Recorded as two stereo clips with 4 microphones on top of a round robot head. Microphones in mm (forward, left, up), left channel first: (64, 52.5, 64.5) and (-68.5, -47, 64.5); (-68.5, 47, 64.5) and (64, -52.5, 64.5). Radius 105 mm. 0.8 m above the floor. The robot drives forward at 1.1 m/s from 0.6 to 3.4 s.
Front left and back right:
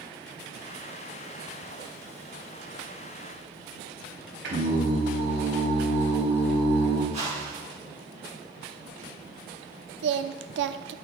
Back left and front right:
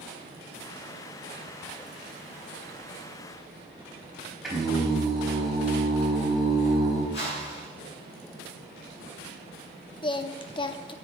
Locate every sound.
4.4 s singing: 125° right, 4.5 m
7.1 s a whoosh: 165° left, 6.5 m
10.0 s singing: 155° right, 0.7 m